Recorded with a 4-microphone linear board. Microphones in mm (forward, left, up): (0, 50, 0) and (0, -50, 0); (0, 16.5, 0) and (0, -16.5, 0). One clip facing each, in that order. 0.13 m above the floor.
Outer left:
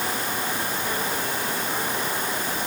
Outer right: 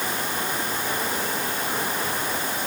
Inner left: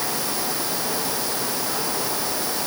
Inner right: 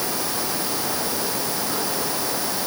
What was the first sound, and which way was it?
Only background noise.